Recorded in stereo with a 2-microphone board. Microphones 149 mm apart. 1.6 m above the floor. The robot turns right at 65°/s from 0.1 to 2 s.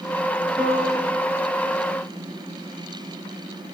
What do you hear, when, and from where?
0.6 s a piano: 175° left, 4.5 m; by 1.2 s 140° right, 4.5 m